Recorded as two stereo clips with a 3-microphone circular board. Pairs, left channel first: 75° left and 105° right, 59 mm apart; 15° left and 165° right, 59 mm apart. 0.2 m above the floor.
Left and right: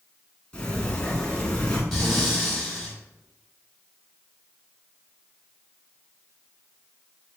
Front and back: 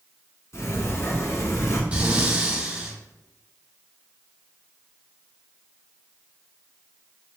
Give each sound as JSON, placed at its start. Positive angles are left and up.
{"t": 0.5, "sound": "a sliding door", "azimuth_deg": 5, "distance_m": 1.1}
{"t": 1.9, "sound": "breathing", "azimuth_deg": 160, "distance_m": 1.6}